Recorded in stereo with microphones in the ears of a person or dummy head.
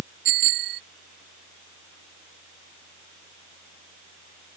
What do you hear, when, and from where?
0.2 s a bicycle bell: 60° right (ahead or behind)